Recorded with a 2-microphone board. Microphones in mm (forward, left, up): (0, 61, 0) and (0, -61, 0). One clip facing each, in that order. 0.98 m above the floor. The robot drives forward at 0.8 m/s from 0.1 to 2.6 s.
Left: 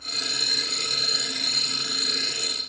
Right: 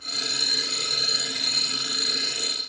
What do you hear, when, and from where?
Only background noise.